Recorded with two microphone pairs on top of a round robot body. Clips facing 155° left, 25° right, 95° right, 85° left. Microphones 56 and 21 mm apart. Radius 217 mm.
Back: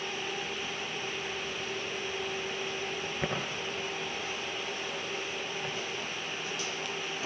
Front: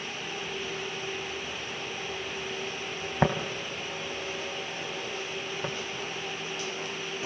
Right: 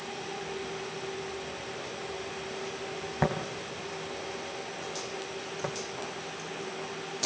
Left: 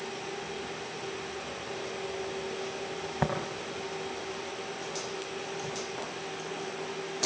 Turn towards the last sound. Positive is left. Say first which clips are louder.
# front 3 dB, right 3 dB
turn(degrees=-65)